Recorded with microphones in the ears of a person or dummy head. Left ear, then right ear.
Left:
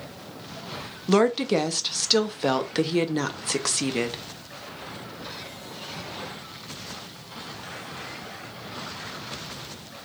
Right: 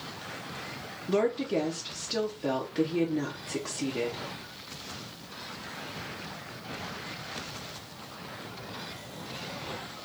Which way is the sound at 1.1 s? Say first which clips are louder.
Left 6 dB; 50° left (ahead or behind).